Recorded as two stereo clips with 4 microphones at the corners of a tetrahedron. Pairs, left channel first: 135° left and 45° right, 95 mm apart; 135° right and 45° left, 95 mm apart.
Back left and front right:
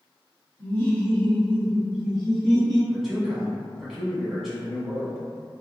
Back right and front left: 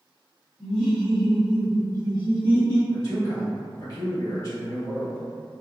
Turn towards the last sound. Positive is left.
turn(degrees=-130)